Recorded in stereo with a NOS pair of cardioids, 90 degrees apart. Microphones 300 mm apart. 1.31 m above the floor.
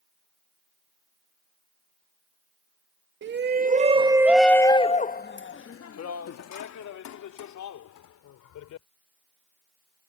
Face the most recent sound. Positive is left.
turn(degrees=80)